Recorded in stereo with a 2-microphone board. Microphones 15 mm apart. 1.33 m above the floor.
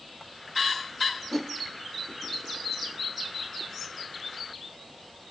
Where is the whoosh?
10° left (ahead or behind), 1.1 m.